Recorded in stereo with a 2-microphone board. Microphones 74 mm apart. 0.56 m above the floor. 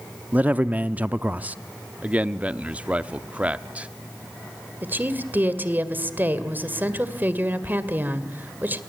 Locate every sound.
0.3 s a man speaking: 20° right (ahead or behind), 0.6 m
2.0 s a man speaking: 20° right (ahead or behind), 0.7 m
4.8 s a woman speaking: 25° right (ahead or behind), 2 m